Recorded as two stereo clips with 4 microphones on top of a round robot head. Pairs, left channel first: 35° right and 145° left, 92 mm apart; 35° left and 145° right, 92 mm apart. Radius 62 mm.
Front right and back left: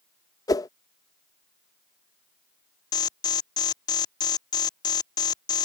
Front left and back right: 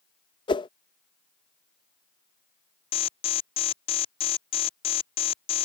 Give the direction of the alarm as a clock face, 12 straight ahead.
12 o'clock.